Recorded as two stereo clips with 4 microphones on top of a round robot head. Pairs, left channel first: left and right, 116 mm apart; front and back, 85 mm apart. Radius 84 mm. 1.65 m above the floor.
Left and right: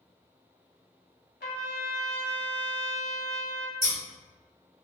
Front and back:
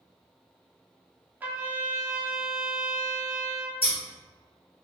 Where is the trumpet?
115° left, 0.7 m.